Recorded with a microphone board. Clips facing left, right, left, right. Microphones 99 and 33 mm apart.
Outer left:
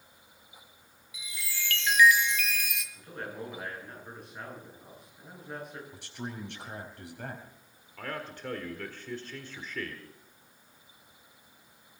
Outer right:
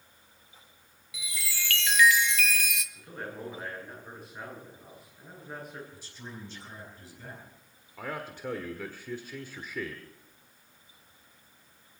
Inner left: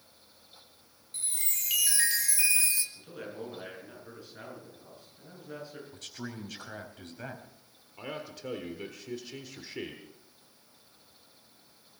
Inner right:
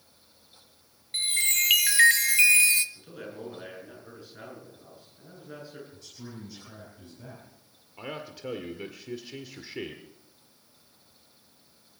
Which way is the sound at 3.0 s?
Centre (ahead or behind).